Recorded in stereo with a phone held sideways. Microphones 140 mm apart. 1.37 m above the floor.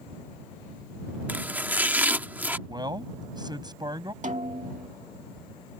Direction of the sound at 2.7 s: 30° right (ahead or behind).